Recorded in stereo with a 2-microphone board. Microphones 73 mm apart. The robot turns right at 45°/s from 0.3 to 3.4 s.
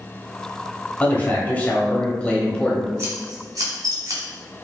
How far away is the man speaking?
About 1.0 m.